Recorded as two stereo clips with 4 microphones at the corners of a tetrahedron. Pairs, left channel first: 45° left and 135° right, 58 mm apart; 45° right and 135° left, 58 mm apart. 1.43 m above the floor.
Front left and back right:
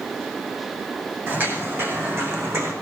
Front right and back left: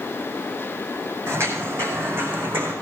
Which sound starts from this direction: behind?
Footsteps, at 1.3 s.